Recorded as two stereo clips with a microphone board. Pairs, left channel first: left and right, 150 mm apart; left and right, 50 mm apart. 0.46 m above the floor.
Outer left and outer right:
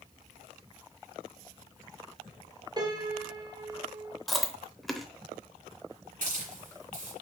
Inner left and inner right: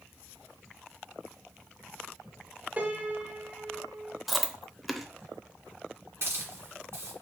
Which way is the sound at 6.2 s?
60° right (ahead or behind).